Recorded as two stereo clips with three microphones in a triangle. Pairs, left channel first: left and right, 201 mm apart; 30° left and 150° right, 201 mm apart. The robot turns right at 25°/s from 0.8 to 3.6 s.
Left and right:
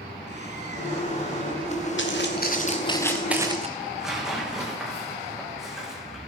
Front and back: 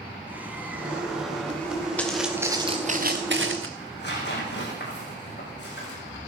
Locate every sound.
0.3 s a bird: 70° right, 1.7 m; by 1.9 s 45° right, 1.7 m
2.0 s footsteps: 115° left, 2 m; by 3.7 s 150° right, 1.2 m
3.8 s tearing paper: 5° right, 5 m